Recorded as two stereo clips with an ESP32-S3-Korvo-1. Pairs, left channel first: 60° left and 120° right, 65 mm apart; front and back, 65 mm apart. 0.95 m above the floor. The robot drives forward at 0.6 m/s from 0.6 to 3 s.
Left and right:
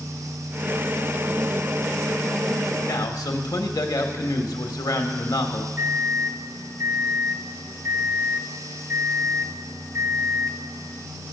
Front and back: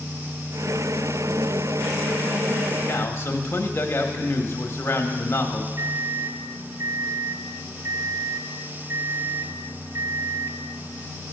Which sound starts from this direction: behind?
A microwave, at 5.8 s.